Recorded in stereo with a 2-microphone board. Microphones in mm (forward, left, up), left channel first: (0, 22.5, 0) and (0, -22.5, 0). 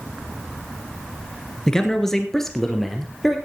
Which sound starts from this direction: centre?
A man speaking, at 1.7 s.